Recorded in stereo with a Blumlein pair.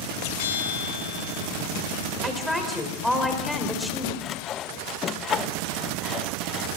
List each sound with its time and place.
0.4 s a bell: 55° left, 7.5 m
2.2 s a woman speaking: straight ahead, 5 m
4.2 s sawing: 25° left, 0.6 m